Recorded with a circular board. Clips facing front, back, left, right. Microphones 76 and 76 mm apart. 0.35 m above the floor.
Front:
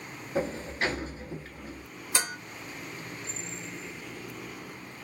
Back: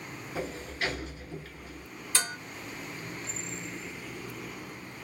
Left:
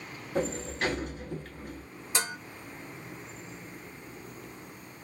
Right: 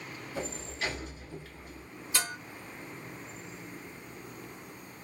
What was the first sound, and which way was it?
A sliding door, 55° left.